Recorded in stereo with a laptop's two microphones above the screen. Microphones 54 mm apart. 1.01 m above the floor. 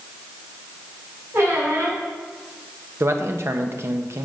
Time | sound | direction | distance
1.3 | a squeak | 55° right (ahead or behind) | 2.5 m
3.0 | a man speaking | 55° right (ahead or behind) | 0.9 m